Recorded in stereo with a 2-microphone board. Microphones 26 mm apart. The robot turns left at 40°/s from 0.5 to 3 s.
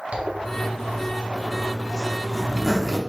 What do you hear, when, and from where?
0.1 s a zipper: 50° right (ahead or behind), 0.8 m; by 3.0 s 5° left (ahead or behind), 0.8 m